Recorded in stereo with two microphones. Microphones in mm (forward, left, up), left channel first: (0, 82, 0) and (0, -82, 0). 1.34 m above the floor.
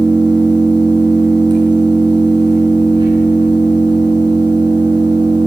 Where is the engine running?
30° right (ahead or behind), 8.5 m.